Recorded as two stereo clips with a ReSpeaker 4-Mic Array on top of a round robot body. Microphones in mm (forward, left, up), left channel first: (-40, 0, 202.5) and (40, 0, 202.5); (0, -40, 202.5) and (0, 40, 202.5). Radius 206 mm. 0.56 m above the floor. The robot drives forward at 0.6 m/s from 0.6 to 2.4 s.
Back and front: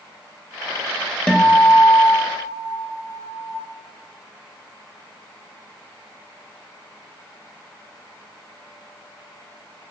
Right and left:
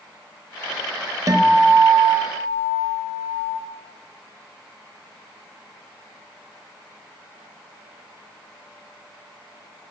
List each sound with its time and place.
1.3 s a guitar: 105° left, 1.4 m; by 3.6 s 140° left, 1.7 m